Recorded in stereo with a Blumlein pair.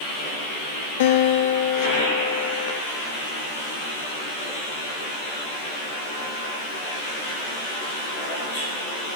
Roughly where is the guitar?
Ahead left.